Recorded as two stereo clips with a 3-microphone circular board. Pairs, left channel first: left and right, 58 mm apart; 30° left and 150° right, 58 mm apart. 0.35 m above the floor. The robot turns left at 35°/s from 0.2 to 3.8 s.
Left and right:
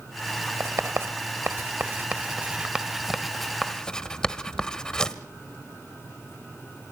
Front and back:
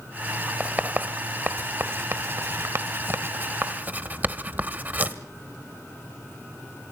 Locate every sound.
0.6 s writing: 85° right, 1.2 m; by 5.2 s 160° left, 1.2 m